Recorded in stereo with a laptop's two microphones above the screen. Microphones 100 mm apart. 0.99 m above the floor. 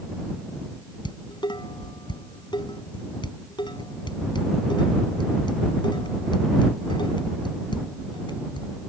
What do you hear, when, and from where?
1.1 s dishes clattering: 50° left (ahead or behind)